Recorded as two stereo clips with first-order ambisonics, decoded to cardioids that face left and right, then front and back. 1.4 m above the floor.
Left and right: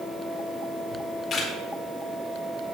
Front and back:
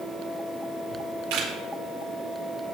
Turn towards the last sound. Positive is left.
turn(degrees=155)